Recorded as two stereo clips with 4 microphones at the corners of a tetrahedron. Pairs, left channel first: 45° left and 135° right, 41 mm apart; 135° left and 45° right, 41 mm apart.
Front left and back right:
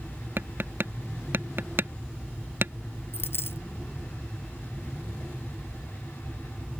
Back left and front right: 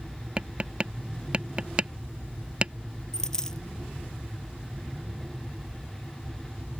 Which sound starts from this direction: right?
Tapping, at 0.4 s.